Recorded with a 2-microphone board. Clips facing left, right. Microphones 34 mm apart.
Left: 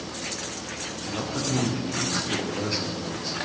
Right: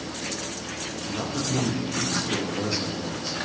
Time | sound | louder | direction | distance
1.1 | a man speaking | even | 20° left (ahead or behind) | 7.5 m